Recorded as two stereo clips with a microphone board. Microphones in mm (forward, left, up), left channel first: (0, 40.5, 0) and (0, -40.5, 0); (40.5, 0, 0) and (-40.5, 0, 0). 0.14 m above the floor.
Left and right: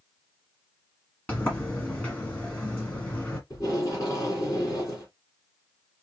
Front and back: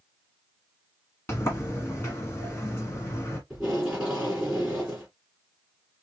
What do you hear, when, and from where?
1.3 s a sliding door: 35° left, 1.4 m
3.5 s tape being pulled: 95° left, 2 m